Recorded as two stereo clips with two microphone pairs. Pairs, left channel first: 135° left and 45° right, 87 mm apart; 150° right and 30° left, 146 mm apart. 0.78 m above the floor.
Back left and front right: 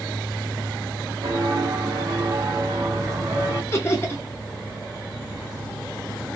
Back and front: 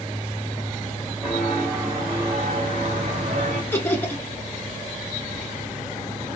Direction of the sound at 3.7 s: 155° left.